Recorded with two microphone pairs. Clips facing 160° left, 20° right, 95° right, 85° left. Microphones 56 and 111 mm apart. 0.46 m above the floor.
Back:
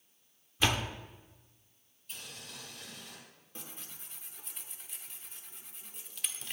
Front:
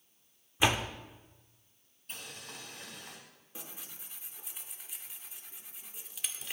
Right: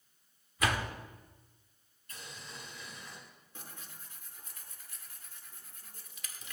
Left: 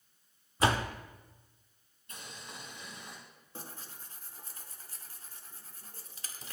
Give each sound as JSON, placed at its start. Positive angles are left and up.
{"t": 0.6, "sound": "a door slam", "azimuth_deg": 45, "distance_m": 0.7}
{"t": 2.1, "sound": "boiling", "azimuth_deg": 20, "distance_m": 4.0}
{"t": 3.5, "sound": "tearing paper", "azimuth_deg": 65, "distance_m": 1.0}